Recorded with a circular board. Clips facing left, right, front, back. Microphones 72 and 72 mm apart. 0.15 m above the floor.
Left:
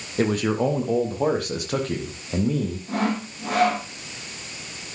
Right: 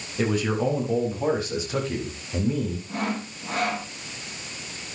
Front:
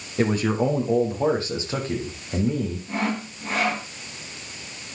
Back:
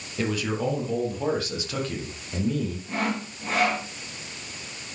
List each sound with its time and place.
0.2 s a man speaking: 55° left, 4.5 m; by 2.8 s 65° left, 6 m
2.9 s sawing: 90° left, 5.5 m